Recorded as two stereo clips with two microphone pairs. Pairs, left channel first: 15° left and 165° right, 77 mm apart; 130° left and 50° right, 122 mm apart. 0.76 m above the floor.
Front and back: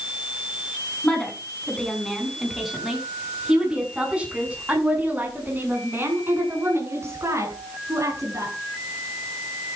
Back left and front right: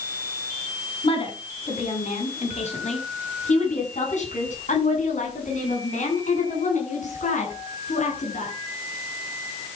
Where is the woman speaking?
95° left, 7 m; by 8.5 s 150° left, 9 m.